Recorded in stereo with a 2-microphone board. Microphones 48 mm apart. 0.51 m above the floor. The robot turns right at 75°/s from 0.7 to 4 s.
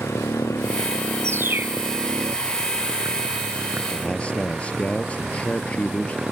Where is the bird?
65° right; by 1.8 s 30° right.